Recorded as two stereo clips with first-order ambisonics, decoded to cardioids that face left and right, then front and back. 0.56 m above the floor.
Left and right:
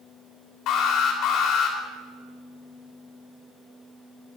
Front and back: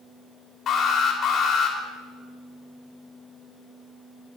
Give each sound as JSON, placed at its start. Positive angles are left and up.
{"t": 0.7, "sound": "an alarm", "azimuth_deg": 60, "distance_m": 2.5}